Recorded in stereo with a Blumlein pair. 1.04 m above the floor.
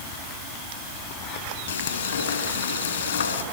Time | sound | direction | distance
1.7 | frying | 65° left | 4.5 m